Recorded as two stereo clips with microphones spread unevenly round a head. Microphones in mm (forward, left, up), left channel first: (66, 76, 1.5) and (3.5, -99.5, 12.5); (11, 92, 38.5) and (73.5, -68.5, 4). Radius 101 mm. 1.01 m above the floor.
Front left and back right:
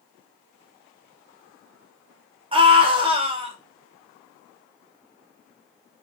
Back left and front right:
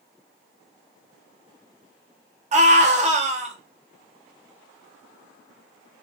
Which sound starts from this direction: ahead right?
A scream, at 2.5 s.